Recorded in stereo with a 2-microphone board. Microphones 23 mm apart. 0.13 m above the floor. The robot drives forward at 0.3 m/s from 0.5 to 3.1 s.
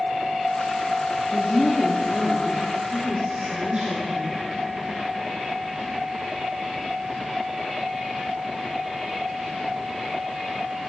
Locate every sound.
1.3 s a woman speaking: 45° right (ahead or behind), 1.9 m